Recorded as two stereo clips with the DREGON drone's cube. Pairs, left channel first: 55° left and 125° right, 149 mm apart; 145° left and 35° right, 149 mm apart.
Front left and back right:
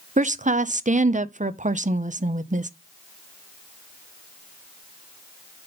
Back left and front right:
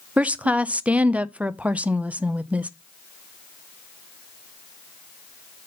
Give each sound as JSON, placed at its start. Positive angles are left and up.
{"t": 0.2, "sound": "a woman speaking", "azimuth_deg": -115, "distance_m": 0.5}